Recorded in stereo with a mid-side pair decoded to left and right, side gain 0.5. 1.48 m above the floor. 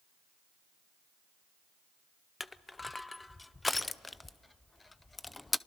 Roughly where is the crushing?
Ahead.